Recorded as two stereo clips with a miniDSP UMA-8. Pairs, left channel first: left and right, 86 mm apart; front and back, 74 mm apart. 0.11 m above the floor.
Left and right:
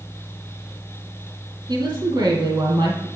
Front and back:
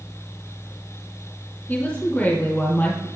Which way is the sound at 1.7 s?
70° right.